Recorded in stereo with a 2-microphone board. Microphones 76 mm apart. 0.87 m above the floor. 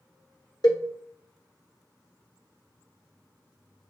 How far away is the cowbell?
About 1.0 m.